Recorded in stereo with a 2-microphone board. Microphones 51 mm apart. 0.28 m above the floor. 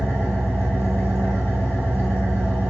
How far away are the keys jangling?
I don't hear keys jangling.